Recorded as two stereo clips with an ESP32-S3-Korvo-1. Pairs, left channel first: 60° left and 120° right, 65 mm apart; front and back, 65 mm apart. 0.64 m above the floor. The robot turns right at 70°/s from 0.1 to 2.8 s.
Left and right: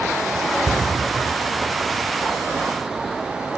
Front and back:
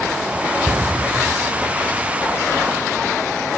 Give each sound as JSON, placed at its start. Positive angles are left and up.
{"t": 0.7, "sound": "a cupboard door", "azimuth_deg": 95, "distance_m": 2.0}